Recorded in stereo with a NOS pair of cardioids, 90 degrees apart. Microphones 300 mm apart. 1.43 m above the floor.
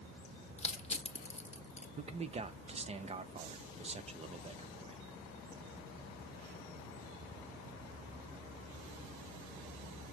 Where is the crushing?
20° left, 0.8 m.